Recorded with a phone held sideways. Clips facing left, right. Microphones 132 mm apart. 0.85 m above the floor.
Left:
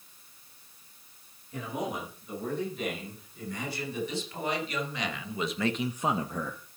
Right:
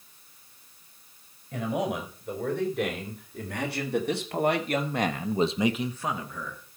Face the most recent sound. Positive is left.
turn(degrees=45)  # may be behind; listen again after turning